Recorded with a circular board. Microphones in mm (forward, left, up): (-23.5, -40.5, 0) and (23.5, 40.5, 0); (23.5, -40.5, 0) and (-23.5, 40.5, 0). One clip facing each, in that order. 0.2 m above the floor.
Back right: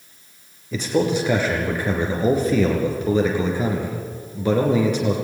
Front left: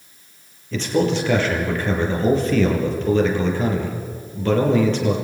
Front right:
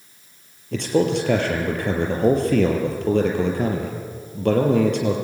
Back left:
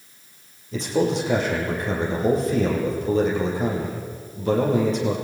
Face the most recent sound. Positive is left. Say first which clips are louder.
# front left 1 dB, front right 2 dB
turn(degrees=-40)